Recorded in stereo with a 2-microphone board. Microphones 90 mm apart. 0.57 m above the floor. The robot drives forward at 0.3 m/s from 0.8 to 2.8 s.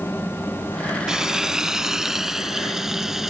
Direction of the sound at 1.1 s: 10° right (ahead or behind).